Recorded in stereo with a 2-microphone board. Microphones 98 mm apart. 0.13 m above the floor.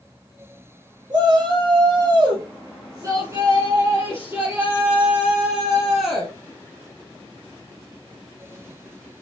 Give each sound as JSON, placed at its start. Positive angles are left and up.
{"t": 1.1, "sound": "a shout", "side_deg": -45, "distance_m": 4.5}